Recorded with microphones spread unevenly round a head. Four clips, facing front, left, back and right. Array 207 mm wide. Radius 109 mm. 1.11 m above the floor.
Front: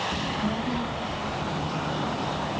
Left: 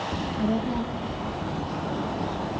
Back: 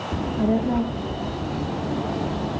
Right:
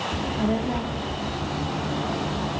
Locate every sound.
0.1 s a child speaking: 170° right, 2 m